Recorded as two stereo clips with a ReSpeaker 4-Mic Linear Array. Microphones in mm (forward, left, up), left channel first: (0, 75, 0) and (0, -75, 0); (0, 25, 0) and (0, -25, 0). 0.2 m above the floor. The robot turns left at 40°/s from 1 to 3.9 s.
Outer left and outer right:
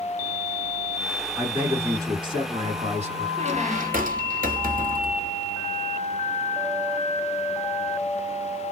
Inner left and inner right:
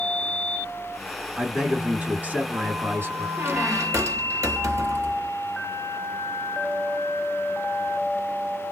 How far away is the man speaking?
About 1.9 m.